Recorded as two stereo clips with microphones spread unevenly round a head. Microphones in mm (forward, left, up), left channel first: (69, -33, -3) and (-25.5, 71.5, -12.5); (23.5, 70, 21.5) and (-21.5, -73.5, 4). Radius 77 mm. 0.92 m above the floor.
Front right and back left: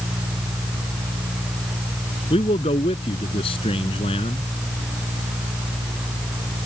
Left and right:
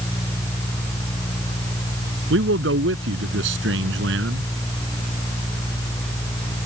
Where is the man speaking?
105° right.